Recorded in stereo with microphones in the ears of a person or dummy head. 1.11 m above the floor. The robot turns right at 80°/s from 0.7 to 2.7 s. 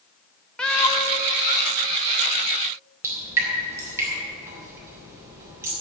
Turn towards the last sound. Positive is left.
turn(degrees=-15)  # may be behind; listen again after turning